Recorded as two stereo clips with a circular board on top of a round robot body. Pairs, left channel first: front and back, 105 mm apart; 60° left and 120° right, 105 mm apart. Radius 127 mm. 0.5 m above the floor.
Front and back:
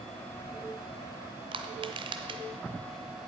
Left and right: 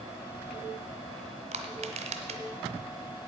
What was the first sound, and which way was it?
Crushing, 135° right.